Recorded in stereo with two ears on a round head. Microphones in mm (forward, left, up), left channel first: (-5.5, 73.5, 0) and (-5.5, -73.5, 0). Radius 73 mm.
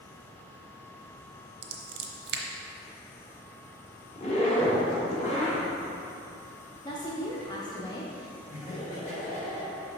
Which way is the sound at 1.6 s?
65° right (ahead or behind).